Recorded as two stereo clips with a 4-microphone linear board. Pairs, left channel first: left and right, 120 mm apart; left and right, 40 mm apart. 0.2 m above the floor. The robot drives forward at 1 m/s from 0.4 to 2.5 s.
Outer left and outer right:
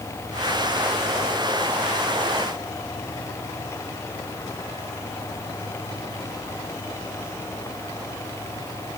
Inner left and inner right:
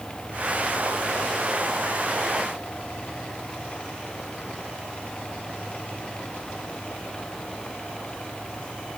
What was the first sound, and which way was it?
Only background noise.